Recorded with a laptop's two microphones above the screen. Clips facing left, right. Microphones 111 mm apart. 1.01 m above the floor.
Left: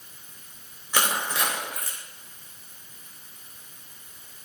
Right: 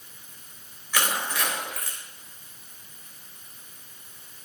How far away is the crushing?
About 2.5 m.